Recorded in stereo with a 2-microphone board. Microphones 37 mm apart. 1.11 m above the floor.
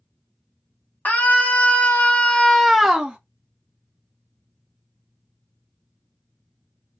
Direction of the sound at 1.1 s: 55° left (ahead or behind).